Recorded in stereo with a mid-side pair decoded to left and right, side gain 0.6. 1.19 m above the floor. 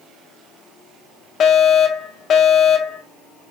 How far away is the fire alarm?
About 3.5 m.